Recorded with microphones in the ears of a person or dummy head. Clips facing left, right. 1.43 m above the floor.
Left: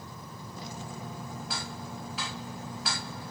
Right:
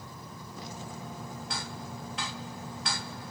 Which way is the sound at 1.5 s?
Centre (ahead or behind).